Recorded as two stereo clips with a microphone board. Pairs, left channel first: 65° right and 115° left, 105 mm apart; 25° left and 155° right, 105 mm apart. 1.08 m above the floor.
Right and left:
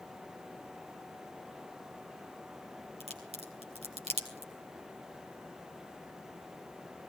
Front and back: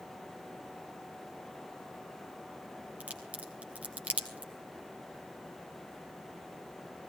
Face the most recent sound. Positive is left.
turn(degrees=125)